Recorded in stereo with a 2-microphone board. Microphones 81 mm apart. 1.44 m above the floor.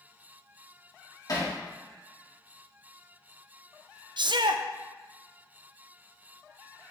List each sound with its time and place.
1.3 s hammering: 50° left (ahead or behind), 1.6 m
4.2 s a shout: 75° right (ahead or behind), 0.5 m